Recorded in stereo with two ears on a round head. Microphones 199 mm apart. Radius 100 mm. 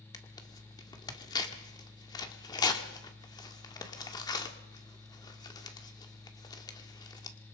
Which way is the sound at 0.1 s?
20° left (ahead or behind).